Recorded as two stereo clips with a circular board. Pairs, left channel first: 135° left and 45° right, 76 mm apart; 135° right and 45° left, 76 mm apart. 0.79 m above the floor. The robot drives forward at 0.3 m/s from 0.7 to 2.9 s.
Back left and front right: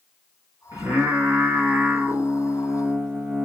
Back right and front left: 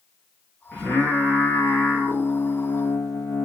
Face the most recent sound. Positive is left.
turn(degrees=-110)